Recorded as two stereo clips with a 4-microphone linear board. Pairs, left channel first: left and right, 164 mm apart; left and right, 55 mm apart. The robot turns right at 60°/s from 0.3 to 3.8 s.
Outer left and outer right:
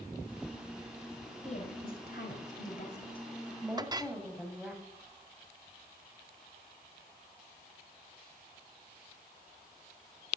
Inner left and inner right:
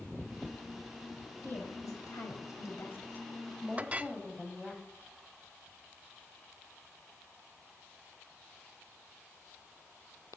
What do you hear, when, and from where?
1.4 s a woman speaking: 45° left, 3.5 m; by 4.8 s 175° right, 3.5 m
3.8 s a clink: 25° right (ahead or behind), 0.5 m